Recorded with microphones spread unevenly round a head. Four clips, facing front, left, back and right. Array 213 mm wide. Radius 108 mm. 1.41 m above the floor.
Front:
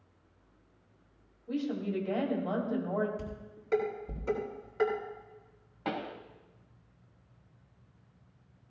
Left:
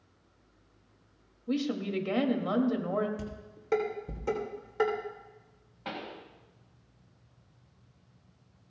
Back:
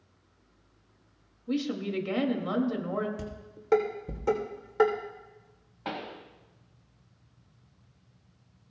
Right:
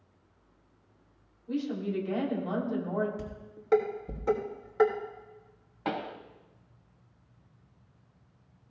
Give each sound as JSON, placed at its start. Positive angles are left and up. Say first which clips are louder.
{"t": 1.5, "sound": "a woman speaking", "louder": "left 1 dB, back 2 dB", "azimuth_deg": 125, "distance_m": 2.5}
{"t": 3.2, "sound": "dishes clattering", "louder": "even, back 2 dB", "azimuth_deg": -160, "distance_m": 3.0}
{"t": 5.8, "sound": "a pop", "louder": "right 6 dB, front 1 dB", "azimuth_deg": -55, "distance_m": 1.2}